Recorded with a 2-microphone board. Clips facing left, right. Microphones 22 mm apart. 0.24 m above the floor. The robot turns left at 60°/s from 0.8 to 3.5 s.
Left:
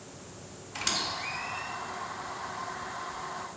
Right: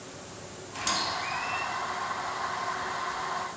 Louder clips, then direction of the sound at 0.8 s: Right 2 dB; 15° left (ahead or behind).